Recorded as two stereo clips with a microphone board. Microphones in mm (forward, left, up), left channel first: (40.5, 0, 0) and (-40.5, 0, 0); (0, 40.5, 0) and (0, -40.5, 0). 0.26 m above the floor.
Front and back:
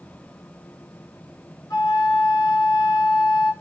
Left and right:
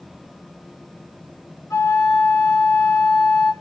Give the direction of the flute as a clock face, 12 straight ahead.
11 o'clock.